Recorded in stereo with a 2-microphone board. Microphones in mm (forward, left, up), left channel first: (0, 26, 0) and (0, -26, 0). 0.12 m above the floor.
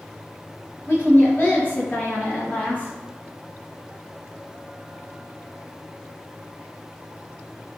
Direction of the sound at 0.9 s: 45° left (ahead or behind).